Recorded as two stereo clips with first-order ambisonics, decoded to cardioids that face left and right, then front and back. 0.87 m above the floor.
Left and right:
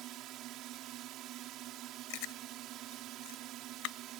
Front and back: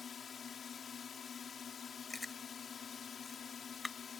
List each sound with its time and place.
0.0 s a drone: 60° right
2.1 s chewing: 80° left